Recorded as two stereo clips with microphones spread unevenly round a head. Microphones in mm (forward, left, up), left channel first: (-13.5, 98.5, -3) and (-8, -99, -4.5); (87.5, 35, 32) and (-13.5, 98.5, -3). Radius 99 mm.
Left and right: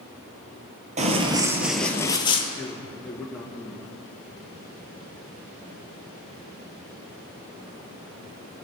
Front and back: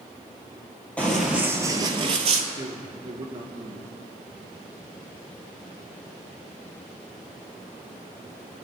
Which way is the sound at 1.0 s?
75° right.